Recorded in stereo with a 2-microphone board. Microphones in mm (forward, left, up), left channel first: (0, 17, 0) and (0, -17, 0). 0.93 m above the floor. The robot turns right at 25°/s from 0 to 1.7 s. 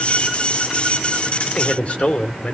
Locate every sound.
1.5 s a man speaking: 45° left (ahead or behind), 2.5 m; by 2.5 s 40° left (ahead or behind), 2.5 m